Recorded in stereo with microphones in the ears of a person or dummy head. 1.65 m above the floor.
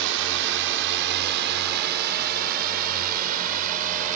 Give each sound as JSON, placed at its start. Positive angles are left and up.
{"t": 0.0, "sound": "a drone", "side_deg": -70}